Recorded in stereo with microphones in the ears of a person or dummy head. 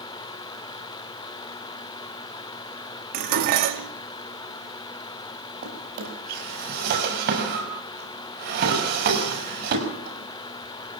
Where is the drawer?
60° right (ahead or behind), 6.5 m.